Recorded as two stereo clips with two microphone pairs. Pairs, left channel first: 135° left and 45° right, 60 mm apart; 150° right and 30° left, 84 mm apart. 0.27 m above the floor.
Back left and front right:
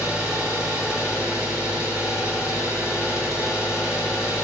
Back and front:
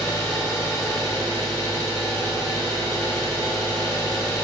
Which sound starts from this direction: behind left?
An engine running, at 0.0 s.